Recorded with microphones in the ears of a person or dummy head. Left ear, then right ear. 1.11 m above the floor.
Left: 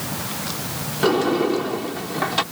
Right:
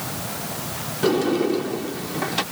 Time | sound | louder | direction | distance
1.0 | a sliding door | left 2 dB | 30° left (ahead or behind) | ?